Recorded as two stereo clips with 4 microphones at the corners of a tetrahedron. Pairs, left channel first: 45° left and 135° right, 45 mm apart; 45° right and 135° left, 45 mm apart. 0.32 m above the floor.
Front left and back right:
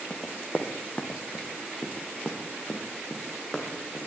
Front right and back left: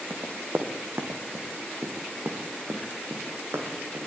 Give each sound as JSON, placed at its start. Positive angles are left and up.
{"t": 0.1, "sound": "running footsteps", "azimuth_deg": 95, "distance_m": 3.0}